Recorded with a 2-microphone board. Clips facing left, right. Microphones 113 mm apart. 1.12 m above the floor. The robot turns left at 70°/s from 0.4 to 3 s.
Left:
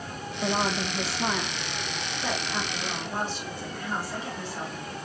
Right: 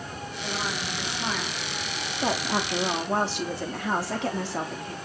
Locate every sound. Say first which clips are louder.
0.4 s a woman speaking: left 6 dB; 80° left, 2.5 m; by 5.0 s 100° right, 2.5 m